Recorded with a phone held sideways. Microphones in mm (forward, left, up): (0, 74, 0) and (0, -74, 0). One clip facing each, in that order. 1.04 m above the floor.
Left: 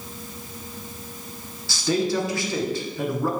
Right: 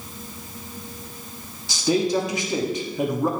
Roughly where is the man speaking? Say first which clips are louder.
Right 2 dB; centre.